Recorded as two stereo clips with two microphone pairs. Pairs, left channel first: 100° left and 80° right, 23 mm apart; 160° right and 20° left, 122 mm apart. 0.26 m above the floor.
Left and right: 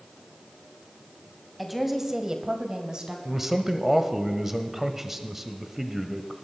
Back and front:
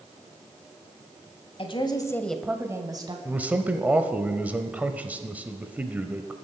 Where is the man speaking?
35° right, 0.9 m.